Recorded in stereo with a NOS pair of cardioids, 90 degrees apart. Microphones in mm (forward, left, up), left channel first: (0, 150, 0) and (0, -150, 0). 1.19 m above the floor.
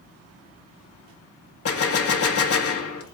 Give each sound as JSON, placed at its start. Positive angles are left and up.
{"t": 1.6, "sound": "a gunshot", "azimuth_deg": 45, "distance_m": 1.8}